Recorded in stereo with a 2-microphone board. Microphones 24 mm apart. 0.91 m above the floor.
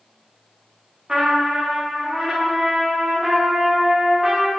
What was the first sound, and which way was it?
A trumpet, 35° right (ahead or behind).